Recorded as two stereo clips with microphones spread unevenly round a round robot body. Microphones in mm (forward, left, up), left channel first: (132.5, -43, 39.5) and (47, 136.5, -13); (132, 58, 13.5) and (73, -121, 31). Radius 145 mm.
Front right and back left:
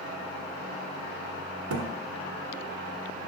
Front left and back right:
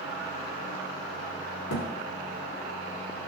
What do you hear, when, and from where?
1.7 s a thud: 115° left, 1.4 m